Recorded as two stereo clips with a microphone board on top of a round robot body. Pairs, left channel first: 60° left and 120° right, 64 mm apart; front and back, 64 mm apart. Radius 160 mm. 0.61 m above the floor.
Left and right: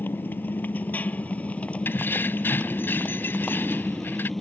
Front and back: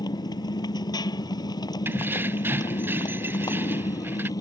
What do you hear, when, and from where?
0.0 s a motorcycle: straight ahead; by 4.4 s 25° right
1.9 s keys jangling: 120° left